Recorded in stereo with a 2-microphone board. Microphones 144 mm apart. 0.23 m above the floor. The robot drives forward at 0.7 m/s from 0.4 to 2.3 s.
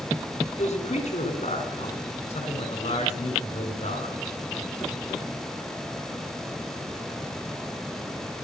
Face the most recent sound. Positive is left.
turn(degrees=50)  # may be behind; listen again after turning